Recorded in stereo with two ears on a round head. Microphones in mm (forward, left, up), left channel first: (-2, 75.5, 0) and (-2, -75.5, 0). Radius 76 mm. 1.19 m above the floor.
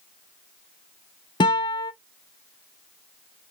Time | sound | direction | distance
1.4 | a guitar | 25° left (ahead or behind) | 0.6 m